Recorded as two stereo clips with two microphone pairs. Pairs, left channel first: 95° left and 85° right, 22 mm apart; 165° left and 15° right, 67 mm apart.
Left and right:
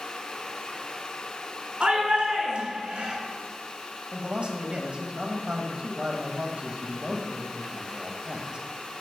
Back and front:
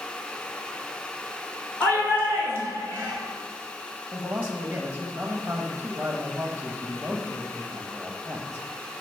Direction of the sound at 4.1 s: 70° right.